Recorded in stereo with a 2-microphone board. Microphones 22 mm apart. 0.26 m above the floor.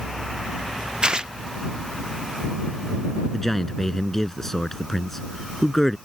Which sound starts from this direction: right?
Tearing paper, at 1.0 s.